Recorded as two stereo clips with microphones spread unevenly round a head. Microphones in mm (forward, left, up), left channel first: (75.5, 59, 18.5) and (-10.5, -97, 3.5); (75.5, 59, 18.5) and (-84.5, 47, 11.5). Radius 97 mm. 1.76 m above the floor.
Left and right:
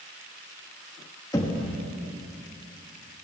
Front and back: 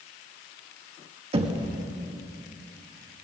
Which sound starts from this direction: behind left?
Knocking, at 1.3 s.